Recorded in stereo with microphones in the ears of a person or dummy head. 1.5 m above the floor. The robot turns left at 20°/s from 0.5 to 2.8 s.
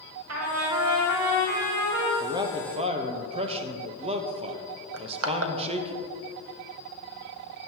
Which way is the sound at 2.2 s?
20° right (ahead or behind).